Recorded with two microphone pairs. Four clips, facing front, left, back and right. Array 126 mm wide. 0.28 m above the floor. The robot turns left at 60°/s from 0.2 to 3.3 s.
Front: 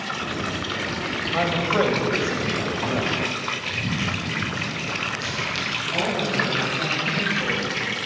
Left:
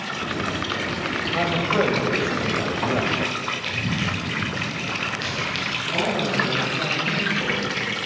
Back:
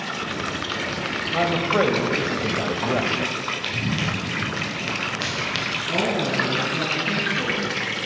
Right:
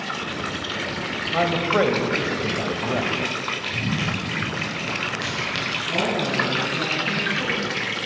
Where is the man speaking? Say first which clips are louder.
Right 2 dB, back 1 dB; 75° right, 1.0 m; by 3.2 s 170° left, 1.0 m.